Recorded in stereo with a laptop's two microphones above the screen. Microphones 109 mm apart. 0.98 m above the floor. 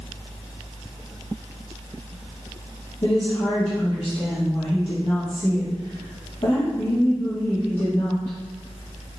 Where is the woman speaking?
60° left (ahead or behind), 2.5 m.